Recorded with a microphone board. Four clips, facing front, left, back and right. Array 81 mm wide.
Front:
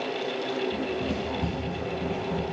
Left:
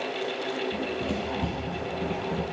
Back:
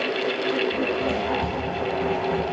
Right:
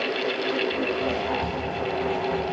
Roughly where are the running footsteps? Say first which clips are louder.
Right 4 dB, back 5 dB; ahead left.